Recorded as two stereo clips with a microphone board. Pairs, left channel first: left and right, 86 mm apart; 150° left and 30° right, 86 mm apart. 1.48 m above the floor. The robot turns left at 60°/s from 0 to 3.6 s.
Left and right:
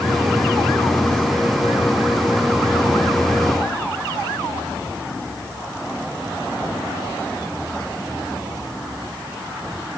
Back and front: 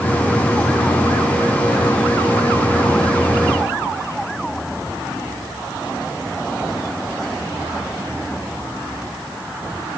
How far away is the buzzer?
No buzzer in this recording.